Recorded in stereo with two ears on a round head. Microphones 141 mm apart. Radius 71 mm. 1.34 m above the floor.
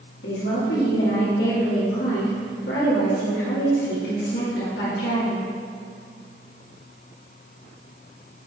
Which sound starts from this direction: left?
A woman speaking, at 0.2 s.